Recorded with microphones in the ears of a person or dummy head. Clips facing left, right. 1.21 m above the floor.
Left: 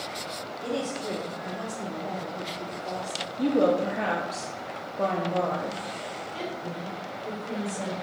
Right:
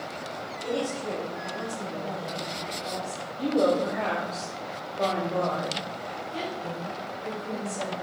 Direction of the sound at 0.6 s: 25° left (ahead or behind).